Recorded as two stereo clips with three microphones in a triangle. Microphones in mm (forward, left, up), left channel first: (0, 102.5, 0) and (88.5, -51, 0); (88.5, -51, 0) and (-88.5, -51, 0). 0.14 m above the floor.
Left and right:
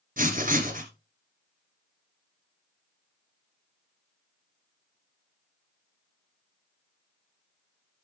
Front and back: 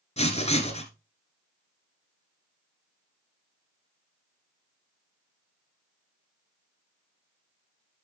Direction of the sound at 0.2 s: 45° right.